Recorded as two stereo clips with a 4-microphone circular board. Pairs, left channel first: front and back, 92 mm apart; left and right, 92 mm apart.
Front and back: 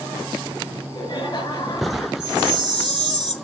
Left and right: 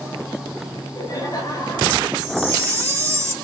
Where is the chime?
145° right, 1.5 m.